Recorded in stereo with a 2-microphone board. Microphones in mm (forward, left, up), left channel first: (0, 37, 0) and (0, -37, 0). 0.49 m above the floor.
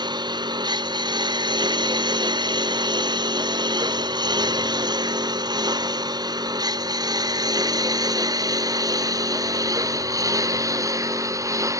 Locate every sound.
0.0 s a lawn mower: 85° right; by 11.8 s 45° right (ahead or behind)